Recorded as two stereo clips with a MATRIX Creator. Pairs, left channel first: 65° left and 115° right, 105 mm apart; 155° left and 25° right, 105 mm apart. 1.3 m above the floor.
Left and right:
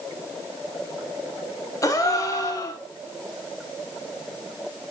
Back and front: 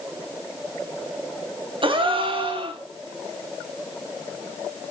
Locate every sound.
1.8 s a gasp: 10° left, 0.6 m